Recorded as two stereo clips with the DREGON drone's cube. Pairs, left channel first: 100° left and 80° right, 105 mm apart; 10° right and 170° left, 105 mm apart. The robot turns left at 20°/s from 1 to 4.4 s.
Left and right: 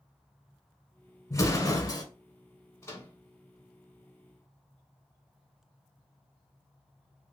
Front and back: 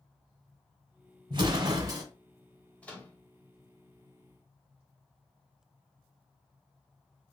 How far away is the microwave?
About 1.2 m.